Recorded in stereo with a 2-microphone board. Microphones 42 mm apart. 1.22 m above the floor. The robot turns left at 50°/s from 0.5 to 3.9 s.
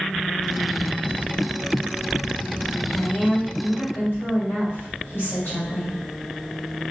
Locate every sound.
2.9 s a woman speaking: 160° left, 1.6 m; by 6.0 s 110° left, 1.6 m